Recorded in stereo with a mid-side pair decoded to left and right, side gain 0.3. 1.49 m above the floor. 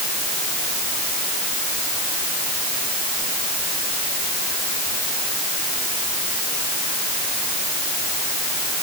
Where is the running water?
I don't hear running water.